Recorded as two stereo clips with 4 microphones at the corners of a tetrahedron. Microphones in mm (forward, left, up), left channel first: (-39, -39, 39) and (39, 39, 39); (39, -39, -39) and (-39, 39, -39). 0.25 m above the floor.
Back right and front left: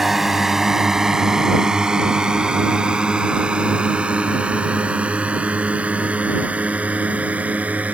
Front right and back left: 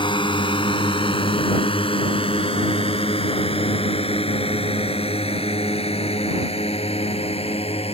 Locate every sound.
0.0 s a drone: 40° right; by 7.9 s 30° right